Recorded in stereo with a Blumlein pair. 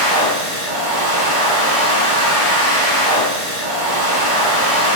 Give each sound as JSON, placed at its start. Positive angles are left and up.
{"t": 0.0, "sound": "a machine running", "azimuth_deg": -60, "distance_m": 1.3}